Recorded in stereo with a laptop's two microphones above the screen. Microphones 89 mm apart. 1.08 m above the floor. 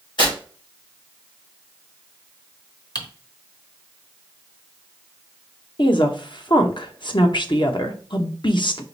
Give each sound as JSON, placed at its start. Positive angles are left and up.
{"t": 0.2, "sound": "tearing paper", "side_deg": 60, "distance_m": 3.0}
{"t": 3.0, "sound": "typing on a keyboard", "side_deg": 50, "distance_m": 1.0}
{"t": 5.8, "sound": "a woman speaking", "side_deg": 60, "distance_m": 0.9}